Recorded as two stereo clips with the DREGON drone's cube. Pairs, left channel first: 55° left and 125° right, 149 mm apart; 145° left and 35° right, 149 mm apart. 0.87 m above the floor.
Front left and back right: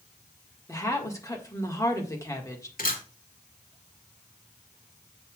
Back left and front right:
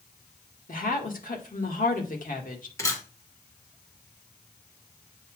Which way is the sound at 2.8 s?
75° left.